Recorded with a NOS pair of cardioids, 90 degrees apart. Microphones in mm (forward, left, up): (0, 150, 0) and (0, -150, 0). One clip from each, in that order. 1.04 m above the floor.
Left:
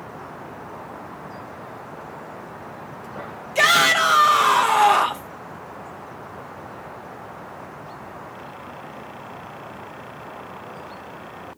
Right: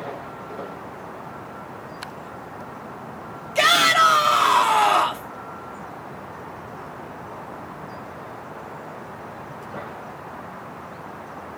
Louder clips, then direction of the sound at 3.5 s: Even; 5° left.